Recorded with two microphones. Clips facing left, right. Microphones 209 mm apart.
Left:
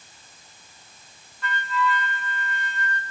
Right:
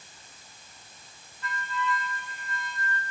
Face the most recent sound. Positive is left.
turn(degrees=75)  # may be behind; listen again after turning